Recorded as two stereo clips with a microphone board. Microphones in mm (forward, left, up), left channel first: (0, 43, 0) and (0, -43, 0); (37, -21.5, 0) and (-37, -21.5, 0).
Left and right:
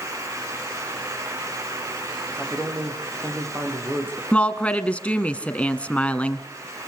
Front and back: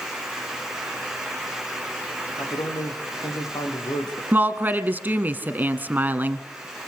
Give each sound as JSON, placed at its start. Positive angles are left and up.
{"t": 2.3, "sound": "a man speaking", "azimuth_deg": -25, "distance_m": 6.5}
{"t": 4.3, "sound": "a woman speaking", "azimuth_deg": 150, "distance_m": 1.6}